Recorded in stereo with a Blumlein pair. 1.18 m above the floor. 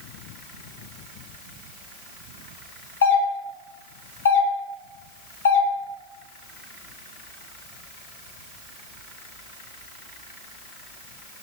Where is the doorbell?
70° left, 1.5 m.